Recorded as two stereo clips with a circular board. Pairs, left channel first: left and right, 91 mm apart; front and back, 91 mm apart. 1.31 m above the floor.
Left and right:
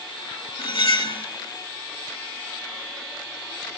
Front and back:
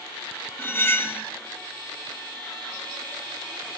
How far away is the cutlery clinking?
About 1.9 m.